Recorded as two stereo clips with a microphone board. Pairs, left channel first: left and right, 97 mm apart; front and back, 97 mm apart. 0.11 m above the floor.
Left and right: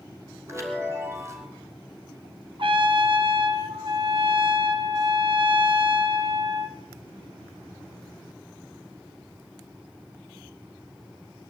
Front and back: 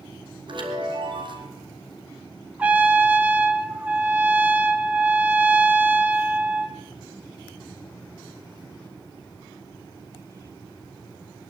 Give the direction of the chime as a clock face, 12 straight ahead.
5 o'clock.